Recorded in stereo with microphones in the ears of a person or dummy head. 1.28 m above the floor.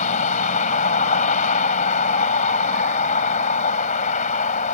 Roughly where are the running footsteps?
I don't hear running footsteps.